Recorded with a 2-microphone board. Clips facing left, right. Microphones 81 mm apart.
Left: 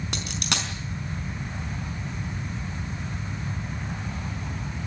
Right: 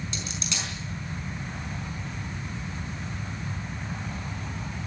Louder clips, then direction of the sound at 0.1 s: Left 4 dB; 70° left (ahead or behind).